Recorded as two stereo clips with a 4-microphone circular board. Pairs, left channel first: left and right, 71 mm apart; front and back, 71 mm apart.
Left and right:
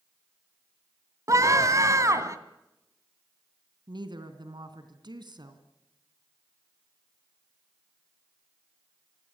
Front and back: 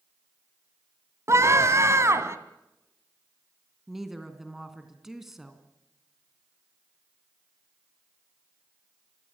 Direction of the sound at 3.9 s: 95° right.